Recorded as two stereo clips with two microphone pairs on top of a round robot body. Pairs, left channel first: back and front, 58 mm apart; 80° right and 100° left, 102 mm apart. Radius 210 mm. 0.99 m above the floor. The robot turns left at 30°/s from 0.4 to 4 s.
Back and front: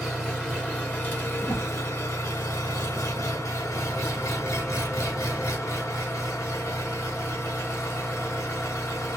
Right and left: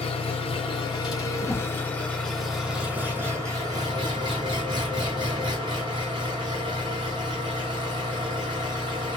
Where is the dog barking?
I don't hear a dog barking.